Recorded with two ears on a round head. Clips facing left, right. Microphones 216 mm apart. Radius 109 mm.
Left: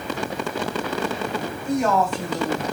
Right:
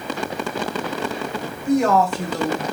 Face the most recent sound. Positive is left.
turn(degrees=-50)  # may be behind; listen again after turning